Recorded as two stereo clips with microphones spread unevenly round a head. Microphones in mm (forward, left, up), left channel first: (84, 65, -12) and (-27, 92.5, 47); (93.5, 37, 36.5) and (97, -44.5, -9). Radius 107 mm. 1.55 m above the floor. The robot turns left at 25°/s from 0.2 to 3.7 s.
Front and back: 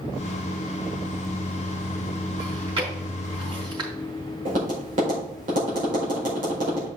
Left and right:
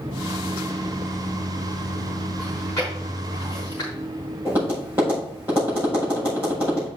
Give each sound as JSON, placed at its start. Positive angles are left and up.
{"t": 2.4, "sound": "chewing", "azimuth_deg": 165, "distance_m": 3.5}
{"t": 4.5, "sound": "tapping", "azimuth_deg": -170, "distance_m": 5.0}